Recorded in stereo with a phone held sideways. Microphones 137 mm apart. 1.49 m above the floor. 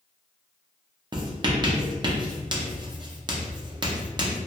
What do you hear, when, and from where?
1.1 s writing: 35° right (ahead or behind), 0.5 m